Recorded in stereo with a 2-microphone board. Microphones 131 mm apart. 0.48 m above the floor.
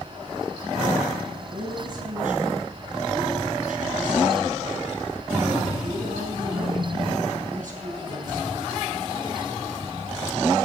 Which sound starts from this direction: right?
A woman speaking, at 1.5 s.